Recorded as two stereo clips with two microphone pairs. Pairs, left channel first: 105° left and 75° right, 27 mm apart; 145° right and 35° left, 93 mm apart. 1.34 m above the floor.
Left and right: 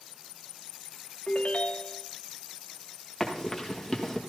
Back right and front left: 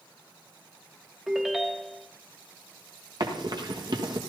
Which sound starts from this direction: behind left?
A ringtone, at 1.3 s.